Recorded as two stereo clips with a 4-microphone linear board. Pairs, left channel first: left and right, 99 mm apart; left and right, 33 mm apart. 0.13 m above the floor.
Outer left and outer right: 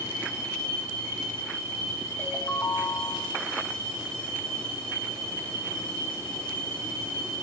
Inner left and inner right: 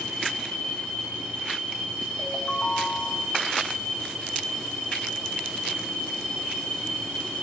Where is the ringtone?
20° left (ahead or behind), 7 m.